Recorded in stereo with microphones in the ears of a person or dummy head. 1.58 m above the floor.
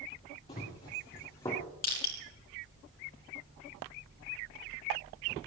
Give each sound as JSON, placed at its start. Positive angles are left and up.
{"t": 0.5, "sound": "running footsteps", "side_deg": 30, "distance_m": 4.0}
{"t": 1.8, "sound": "crushing", "side_deg": 50, "distance_m": 4.0}